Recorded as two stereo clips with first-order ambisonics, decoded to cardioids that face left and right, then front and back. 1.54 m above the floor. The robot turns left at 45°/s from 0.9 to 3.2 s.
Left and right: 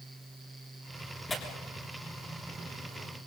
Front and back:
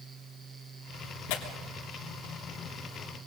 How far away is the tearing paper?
About 3 m.